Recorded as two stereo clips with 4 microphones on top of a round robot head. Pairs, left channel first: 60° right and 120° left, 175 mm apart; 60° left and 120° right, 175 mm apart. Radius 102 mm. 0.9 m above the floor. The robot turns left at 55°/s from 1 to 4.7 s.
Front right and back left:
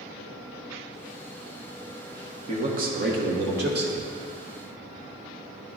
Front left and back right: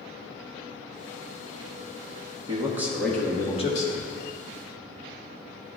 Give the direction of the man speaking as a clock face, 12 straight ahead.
6 o'clock.